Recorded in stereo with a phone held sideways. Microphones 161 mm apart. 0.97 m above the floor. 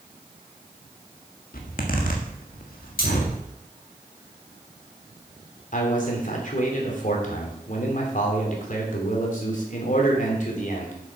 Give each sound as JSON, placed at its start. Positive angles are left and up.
{"t": 1.5, "sound": "a zipper", "side_deg": 65, "distance_m": 1.7}
{"t": 3.0, "sound": "cutlery clinking", "side_deg": 65, "distance_m": 3.0}
{"t": 5.7, "sound": "a man speaking", "side_deg": 55, "distance_m": 2.5}